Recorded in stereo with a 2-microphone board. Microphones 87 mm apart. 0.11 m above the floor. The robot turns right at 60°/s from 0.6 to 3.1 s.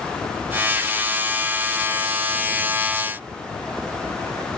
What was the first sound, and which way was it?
Only background noise.